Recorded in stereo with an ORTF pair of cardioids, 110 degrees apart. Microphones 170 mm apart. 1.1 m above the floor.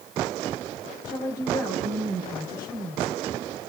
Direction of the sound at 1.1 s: 15° left.